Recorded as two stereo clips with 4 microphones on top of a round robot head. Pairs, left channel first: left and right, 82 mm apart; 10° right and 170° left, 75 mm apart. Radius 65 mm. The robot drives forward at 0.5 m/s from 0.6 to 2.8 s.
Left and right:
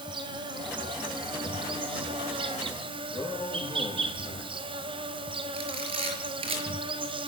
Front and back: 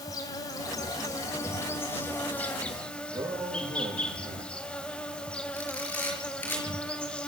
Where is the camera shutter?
80° right, 5.5 m.